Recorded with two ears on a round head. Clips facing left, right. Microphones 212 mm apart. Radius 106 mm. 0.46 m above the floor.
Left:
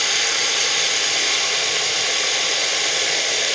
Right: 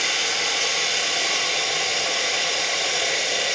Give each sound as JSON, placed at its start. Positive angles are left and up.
{"t": 0.0, "sound": "running water", "side_deg": 70, "distance_m": 3.5}